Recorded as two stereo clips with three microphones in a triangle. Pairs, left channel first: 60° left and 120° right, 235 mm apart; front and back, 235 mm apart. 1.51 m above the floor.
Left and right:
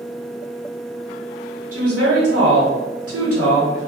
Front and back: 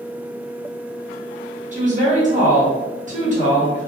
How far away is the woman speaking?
About 1.0 m.